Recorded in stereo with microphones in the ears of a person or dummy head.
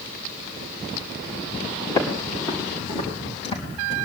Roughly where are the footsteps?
Left.